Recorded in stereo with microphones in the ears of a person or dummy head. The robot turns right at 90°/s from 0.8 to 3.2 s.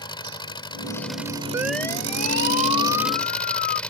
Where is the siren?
20° right (ahead or behind); by 3.8 s 50° left (ahead or behind).